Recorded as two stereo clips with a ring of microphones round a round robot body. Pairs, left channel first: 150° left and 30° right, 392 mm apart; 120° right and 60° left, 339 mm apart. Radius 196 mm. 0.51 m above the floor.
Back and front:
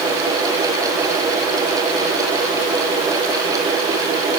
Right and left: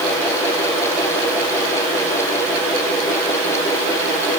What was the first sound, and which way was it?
Only background noise.